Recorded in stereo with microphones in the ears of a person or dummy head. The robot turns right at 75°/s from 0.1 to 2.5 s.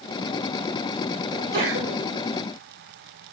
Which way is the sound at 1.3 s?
155° right.